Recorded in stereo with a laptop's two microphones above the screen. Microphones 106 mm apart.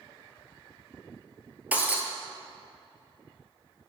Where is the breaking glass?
15° right (ahead or behind), 0.9 m.